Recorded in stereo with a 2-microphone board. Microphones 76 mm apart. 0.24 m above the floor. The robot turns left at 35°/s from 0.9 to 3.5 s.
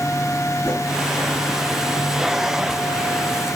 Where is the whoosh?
40° left (ahead or behind), 3.5 m.